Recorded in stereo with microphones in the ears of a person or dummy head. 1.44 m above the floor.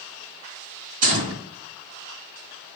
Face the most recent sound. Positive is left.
turn(degrees=-45)  # may be behind; listen again after turning